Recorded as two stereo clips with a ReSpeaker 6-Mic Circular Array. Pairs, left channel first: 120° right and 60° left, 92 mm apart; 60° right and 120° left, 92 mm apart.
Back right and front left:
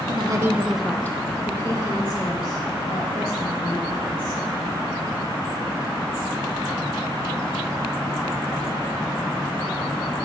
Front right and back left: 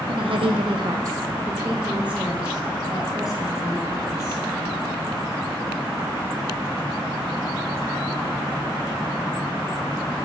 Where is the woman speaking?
90° left, 1.0 m; by 4.4 s 155° right, 5.5 m.